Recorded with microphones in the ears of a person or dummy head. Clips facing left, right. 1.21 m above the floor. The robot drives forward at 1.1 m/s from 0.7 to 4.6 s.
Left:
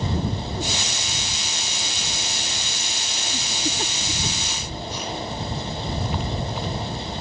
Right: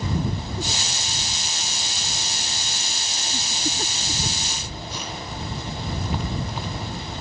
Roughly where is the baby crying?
I don't hear a baby crying.